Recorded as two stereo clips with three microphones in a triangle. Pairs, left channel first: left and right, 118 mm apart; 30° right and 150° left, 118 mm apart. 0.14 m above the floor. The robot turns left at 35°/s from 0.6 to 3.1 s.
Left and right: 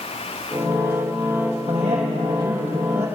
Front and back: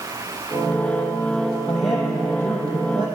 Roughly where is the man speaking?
Right.